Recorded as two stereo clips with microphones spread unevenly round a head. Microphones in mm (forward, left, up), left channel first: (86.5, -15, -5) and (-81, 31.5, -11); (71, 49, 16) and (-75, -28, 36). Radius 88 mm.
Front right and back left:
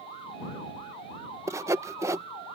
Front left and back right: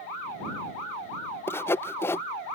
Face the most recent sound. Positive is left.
turn(degrees=95)